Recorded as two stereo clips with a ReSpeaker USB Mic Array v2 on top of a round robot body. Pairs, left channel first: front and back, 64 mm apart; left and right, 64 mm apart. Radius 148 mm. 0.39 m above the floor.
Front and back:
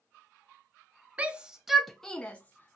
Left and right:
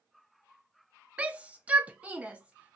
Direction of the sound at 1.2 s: 135° right.